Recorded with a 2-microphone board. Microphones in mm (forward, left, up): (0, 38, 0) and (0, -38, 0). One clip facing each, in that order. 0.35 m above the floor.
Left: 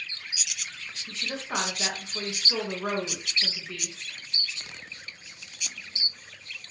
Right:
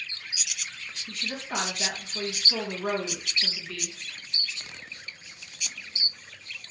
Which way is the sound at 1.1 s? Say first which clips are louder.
Left 1 dB; 25° left (ahead or behind).